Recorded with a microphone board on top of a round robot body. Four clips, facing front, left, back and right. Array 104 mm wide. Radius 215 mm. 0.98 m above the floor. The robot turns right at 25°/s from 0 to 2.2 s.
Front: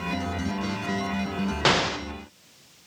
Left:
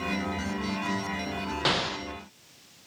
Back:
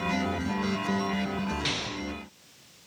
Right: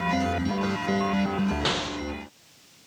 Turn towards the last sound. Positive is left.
turn(degrees=15)